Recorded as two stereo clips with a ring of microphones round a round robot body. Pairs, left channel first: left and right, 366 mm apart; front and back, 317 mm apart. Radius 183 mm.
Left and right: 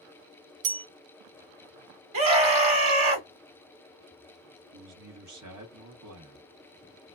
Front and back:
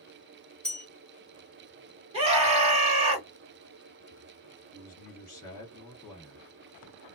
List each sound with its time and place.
0.6 s a bell: 85° right, 0.8 m
2.1 s a scream: 115° right, 1.6 m
4.7 s a man speaking: 80° right, 1.4 m